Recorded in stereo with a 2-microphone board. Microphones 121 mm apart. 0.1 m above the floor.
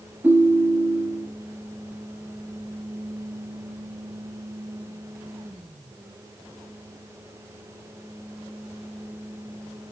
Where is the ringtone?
15° right (ahead or behind), 0.6 m.